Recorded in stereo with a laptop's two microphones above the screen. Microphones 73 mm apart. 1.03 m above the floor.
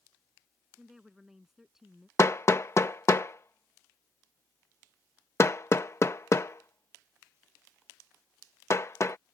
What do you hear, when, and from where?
0.8 s a woman speaking: 5° right (ahead or behind)
2.2 s hammering: 40° left (ahead or behind)